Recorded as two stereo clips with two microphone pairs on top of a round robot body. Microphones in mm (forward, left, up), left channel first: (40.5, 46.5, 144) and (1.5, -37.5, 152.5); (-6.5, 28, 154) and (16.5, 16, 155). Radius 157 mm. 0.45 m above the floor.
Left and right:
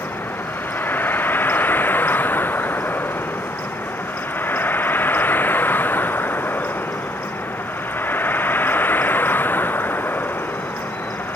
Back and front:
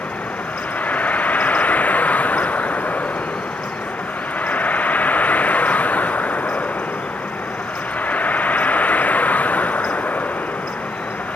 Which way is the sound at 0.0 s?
135° left.